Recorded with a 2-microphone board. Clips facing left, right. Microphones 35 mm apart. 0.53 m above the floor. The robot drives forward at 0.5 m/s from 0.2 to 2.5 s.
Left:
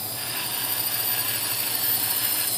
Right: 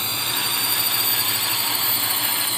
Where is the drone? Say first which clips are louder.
Right 8 dB; 60° right (ahead or behind); by 2.6 s 50° right (ahead or behind).